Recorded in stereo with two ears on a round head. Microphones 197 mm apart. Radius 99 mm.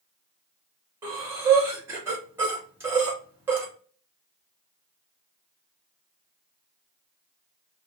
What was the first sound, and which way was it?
Breathing, 15° right (ahead or behind).